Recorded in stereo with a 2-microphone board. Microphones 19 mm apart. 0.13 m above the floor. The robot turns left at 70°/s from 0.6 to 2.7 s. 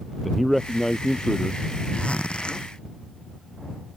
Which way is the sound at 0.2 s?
Straight behind.